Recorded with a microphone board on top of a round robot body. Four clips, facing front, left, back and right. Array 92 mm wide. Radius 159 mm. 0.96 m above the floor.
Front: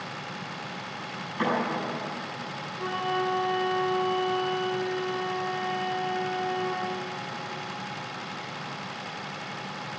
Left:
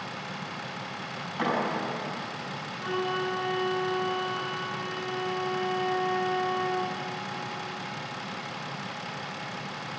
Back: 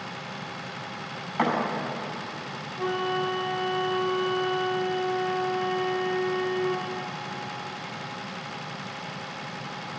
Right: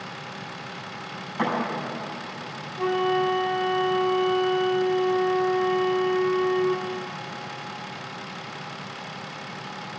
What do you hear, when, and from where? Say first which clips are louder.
1.4 s a thud: right 2 dB, back 2 dB; 170° right, 4.5 m
2.8 s a flute: right 7 dB, back 1 dB; 115° right, 2 m